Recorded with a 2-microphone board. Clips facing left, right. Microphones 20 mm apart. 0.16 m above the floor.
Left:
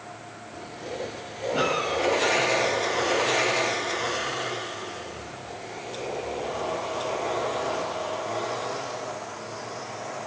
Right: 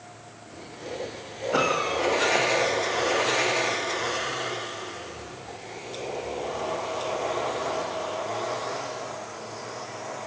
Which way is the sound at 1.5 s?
60° right (ahead or behind).